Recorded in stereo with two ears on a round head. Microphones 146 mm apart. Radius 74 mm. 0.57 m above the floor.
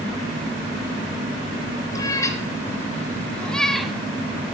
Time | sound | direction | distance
1.9 | a cat meowing | 20° left (ahead or behind) | 2.5 m